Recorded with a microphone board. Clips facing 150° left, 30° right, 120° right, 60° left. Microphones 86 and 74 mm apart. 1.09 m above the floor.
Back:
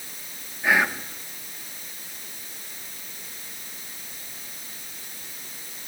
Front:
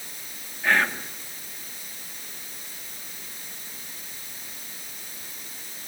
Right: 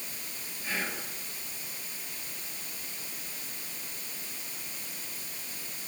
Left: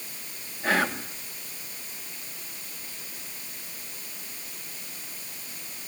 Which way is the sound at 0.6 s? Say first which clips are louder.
Back 1 dB, left 10 dB; 70° left.